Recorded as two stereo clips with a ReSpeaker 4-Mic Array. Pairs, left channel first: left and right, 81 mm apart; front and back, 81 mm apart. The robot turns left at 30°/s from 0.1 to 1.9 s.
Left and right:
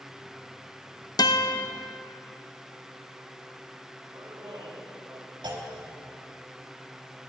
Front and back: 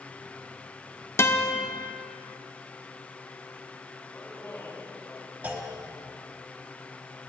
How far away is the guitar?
About 0.6 m.